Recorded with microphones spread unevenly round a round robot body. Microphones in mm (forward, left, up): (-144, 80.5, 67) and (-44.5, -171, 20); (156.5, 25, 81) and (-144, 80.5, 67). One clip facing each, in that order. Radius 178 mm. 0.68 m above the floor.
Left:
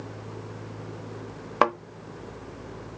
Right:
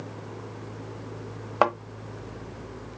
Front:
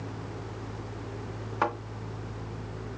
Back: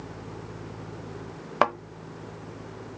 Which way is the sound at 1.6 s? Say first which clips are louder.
Even, back 5 dB; 170° left.